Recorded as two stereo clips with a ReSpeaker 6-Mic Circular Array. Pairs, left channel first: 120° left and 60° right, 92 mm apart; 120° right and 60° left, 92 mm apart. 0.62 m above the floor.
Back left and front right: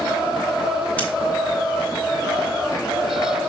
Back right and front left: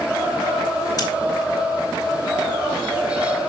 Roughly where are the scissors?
Behind.